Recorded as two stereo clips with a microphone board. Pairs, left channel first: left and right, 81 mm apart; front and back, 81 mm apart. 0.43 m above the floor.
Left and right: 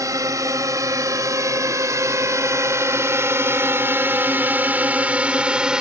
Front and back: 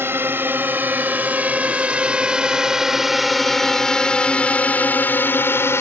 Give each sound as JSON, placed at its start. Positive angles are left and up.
{"t": 0.0, "sound": "a drone", "azimuth_deg": -125}